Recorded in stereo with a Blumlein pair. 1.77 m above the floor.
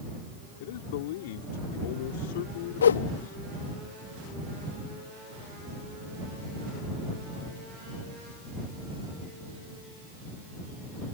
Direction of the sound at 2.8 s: 65° left.